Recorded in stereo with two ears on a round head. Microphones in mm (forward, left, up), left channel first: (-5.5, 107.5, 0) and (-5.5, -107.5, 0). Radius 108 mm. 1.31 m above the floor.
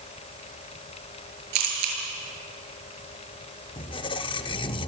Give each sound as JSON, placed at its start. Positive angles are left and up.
{"t": 1.5, "sound": "a camera shutter", "side_deg": -80, "distance_m": 7.0}
{"t": 3.8, "sound": "a squeak", "side_deg": 20, "distance_m": 1.2}